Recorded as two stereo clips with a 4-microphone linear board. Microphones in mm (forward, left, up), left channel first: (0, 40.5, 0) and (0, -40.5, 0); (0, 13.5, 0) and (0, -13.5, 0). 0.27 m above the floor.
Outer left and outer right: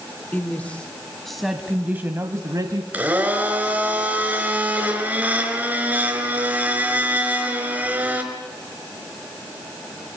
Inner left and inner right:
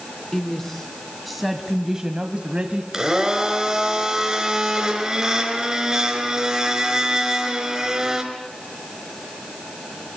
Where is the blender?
20° right (ahead or behind), 4.5 m.